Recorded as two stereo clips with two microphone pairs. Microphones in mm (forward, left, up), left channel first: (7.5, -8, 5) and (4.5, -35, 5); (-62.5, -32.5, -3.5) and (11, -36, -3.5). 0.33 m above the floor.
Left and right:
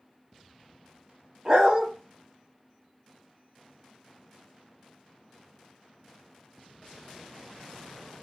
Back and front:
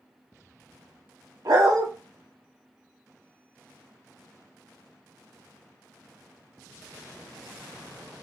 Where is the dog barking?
35° right, 0.7 m.